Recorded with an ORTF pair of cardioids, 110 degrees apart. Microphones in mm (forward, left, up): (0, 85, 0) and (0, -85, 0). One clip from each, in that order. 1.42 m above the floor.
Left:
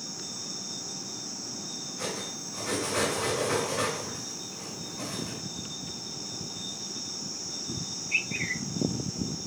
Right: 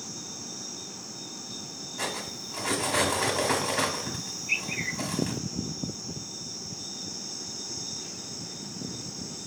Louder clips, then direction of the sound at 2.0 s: Right 3 dB; 50° right.